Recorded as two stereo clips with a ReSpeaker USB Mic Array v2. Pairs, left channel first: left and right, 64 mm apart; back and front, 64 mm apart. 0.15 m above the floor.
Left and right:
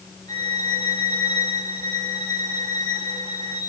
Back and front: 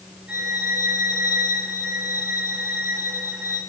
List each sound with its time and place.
0.3 s a violin: 70° left, 9.5 m